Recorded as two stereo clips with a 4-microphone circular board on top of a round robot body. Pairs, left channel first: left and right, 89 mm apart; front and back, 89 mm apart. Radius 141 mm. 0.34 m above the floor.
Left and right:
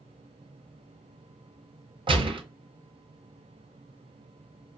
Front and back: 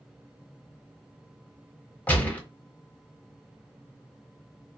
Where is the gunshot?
75° right, 1.3 m.